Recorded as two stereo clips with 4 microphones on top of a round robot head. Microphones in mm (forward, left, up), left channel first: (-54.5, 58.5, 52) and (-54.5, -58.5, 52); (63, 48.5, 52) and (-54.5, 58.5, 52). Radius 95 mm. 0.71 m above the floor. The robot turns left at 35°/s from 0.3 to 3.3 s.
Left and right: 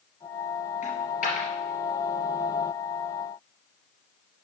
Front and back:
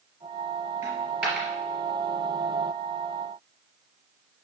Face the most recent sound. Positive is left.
turn(degrees=15)